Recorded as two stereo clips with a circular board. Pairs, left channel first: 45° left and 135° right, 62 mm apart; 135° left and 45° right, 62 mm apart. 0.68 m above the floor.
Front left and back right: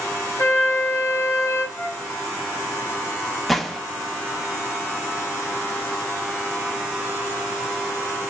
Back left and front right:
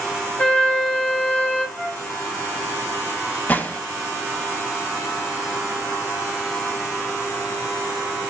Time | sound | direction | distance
0.4 | a flute | 70° left | 1.0 m
1.8 | a flute | 80° left | 1.2 m
3.5 | a gunshot | 130° left | 0.5 m